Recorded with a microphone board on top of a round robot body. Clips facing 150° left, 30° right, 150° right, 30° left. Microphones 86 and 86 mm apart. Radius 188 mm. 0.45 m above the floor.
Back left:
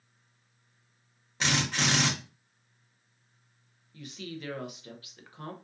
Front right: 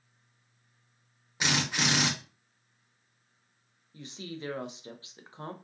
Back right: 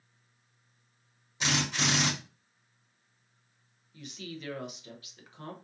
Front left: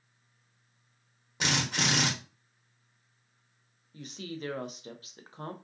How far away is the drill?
About 1.1 m.